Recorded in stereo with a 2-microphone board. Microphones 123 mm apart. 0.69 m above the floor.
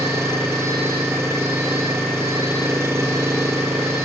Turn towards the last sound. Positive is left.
turn(degrees=-20)  # may be behind; listen again after turning